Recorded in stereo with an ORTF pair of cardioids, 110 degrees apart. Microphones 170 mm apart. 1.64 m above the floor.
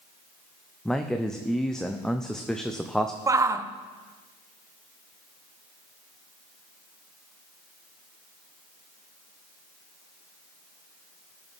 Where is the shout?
20° right, 0.9 m.